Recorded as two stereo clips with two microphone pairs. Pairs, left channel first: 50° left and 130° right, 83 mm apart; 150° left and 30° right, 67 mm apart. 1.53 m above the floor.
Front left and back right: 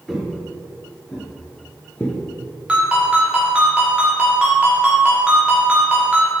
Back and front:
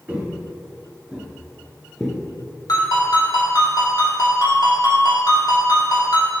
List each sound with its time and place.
0.1 s footsteps: 40° right, 1.6 m; by 2.2 s 90° left, 1.6 m
2.7 s a ringtone: 155° left, 2 m